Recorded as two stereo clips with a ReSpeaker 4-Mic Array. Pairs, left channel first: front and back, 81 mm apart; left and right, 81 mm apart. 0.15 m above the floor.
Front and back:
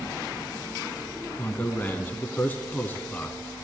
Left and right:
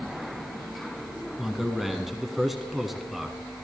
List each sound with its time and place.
1.4 s a man speaking: 5° right, 1.2 m